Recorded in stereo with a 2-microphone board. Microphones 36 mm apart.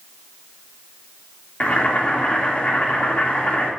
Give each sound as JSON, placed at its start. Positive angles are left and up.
{"t": 1.6, "sound": "boiling", "side_deg": 40, "distance_m": 2.5}